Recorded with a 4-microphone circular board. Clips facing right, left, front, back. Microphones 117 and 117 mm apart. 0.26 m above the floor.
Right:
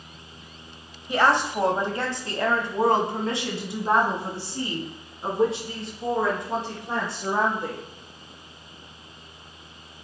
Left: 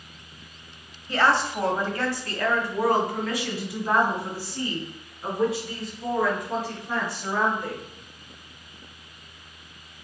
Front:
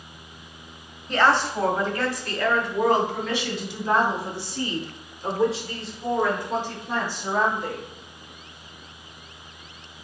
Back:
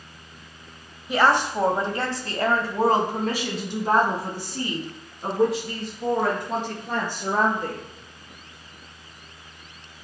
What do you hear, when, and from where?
1.1 s a woman speaking: 120° right, 1.0 m; by 7.8 s 150° right, 4.5 m